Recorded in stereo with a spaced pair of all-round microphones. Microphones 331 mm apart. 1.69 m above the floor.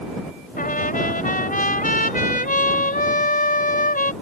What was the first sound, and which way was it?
A trumpet, 25° left (ahead or behind).